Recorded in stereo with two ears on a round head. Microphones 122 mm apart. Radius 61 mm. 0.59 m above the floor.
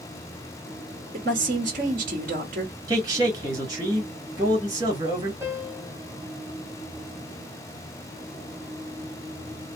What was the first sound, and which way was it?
A woman speaking, 65° right (ahead or behind).